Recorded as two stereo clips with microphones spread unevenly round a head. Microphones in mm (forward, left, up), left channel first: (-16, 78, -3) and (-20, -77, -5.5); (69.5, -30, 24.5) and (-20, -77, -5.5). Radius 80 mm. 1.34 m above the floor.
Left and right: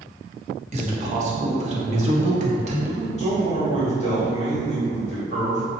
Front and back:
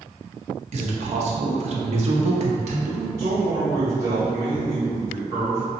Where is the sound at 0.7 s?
140° right, 0.7 m.